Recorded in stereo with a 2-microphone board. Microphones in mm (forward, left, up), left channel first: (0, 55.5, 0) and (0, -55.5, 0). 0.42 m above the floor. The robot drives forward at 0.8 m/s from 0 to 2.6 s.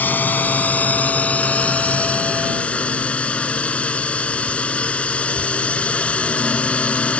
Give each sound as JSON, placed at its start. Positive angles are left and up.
{"t": 0.0, "sound": "a drone", "side_deg": 15}